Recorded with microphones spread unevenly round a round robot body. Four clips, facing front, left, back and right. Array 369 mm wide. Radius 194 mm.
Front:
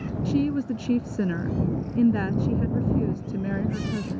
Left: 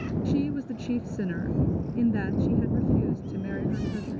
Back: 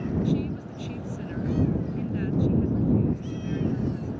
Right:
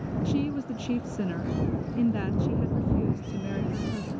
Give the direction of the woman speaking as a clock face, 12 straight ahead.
12 o'clock.